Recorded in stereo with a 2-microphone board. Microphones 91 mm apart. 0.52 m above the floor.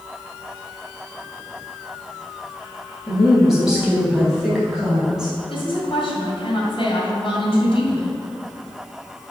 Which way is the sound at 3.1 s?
5° right (ahead or behind).